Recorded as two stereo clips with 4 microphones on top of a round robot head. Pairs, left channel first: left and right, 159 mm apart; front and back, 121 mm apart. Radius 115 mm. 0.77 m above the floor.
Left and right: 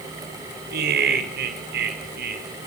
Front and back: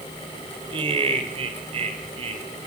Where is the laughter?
120° right, 3 m; by 2.4 s 125° right, 4.5 m.